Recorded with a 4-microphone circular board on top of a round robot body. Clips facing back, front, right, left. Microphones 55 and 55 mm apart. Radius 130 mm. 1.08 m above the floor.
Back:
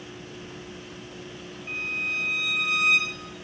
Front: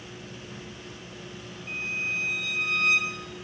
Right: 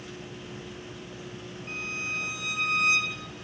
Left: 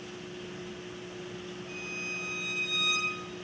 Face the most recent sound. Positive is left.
turn(degrees=-95)